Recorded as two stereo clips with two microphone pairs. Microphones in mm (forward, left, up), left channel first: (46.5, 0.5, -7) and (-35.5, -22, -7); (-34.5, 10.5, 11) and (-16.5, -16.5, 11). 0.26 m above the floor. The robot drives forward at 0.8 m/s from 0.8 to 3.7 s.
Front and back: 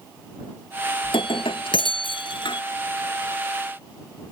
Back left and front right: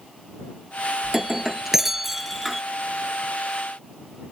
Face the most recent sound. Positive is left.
turn(degrees=60)